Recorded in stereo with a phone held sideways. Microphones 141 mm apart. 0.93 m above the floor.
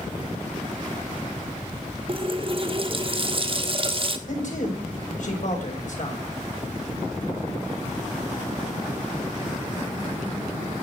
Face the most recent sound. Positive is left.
turn(degrees=65)  # may be behind; listen again after turning